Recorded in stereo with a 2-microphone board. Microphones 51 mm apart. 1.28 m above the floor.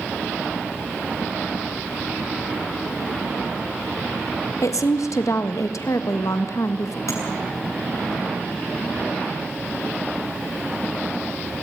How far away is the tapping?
About 8 m.